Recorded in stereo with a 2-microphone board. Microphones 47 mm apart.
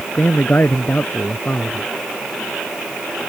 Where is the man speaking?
40° left (ahead or behind).